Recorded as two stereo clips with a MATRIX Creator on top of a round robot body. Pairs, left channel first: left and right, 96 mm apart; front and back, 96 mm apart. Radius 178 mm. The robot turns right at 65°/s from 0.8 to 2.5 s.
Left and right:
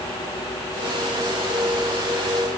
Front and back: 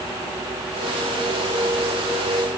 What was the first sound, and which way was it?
Only background noise.